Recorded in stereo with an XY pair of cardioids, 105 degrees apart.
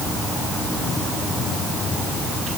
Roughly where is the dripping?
I don't hear dripping.